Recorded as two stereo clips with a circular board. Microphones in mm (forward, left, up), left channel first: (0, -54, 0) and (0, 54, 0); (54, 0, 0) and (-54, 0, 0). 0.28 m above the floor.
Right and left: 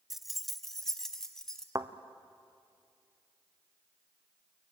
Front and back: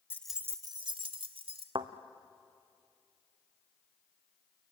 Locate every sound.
0.1 s keys jangling: 5° left, 0.6 m; by 1.6 s 175° right, 1.8 m
1.8 s a thud: 145° left, 1.1 m